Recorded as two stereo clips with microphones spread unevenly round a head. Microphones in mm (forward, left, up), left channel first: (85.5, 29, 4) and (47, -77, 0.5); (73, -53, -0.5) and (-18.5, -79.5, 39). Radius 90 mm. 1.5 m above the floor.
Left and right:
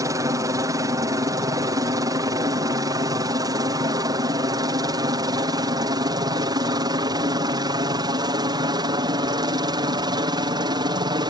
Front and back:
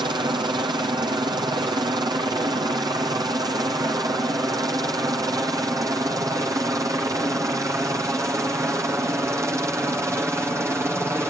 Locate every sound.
0.0 s a helicopter: 135° right; by 11.3 s 90° right